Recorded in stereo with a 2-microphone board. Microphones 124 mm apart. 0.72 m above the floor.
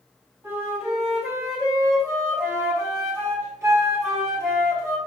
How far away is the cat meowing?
No cat meowing in this recording.